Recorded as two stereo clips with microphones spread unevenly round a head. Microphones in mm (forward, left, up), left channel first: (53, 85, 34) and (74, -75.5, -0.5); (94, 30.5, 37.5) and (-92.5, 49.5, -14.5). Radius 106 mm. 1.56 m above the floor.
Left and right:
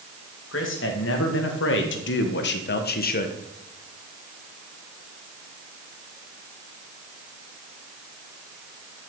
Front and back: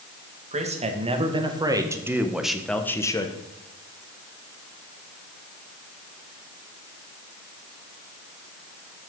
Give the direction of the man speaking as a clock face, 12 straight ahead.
8 o'clock.